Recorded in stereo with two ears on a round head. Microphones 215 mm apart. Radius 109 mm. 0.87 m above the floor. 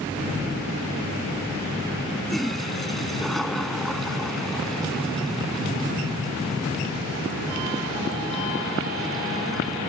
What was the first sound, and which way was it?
A toilet flushing, centre (ahead or behind).